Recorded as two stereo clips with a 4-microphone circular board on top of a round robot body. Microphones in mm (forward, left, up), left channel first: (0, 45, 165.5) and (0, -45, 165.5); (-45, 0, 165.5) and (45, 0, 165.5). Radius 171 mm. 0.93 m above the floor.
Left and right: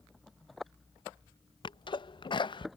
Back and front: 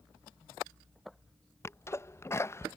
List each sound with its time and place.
1.6 s a sneeze: 120° left